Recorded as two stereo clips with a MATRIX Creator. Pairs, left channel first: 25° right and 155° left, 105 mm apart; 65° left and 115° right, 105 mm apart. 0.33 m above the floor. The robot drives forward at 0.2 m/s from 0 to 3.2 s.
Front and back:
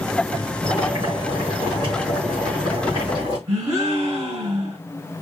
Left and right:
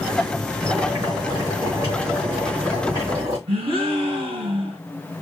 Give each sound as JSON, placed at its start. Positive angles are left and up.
{"t": 0.6, "sound": "boiling", "azimuth_deg": -165, "distance_m": 4.0}
{"t": 3.5, "sound": "a gasp", "azimuth_deg": -145, "distance_m": 3.5}